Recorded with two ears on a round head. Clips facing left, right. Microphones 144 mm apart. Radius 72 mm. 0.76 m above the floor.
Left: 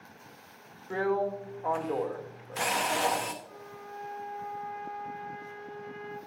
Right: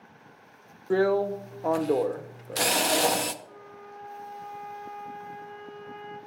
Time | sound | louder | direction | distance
0.9 | a drill | right 6 dB | 45° right (ahead or behind) | 0.6 m
3.4 | a flute | even | 40° right (ahead or behind) | 4.5 m